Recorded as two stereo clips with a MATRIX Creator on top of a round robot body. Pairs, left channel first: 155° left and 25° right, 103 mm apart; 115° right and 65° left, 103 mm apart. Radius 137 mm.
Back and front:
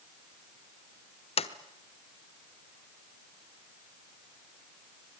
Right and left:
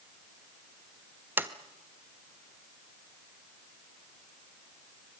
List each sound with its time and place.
1.4 s a sliding door: 140° left, 1.3 m